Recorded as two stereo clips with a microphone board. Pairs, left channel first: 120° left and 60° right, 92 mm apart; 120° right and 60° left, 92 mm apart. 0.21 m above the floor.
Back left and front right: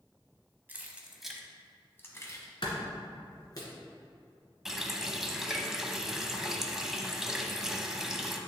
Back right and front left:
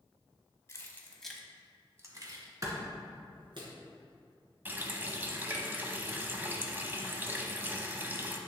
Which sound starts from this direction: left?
A clap, at 2.6 s.